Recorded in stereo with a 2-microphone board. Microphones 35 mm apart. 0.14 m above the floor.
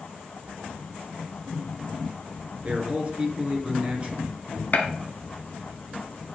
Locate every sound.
2.6 s a man speaking: 35° right (ahead or behind), 1.7 m
4.7 s a gunshot: 50° left (ahead or behind), 0.8 m